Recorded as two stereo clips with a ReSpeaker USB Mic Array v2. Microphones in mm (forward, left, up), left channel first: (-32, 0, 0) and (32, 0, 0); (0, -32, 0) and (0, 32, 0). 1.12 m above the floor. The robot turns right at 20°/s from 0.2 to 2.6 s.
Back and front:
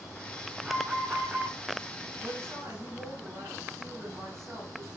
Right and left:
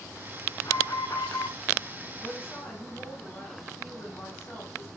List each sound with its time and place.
0.6 s an alarm: 75° right, 5.5 m; by 1.6 s 55° right, 5.5 m
2.2 s a woman speaking: 50° right, 9.5 m; by 4.9 s 40° right, 9.5 m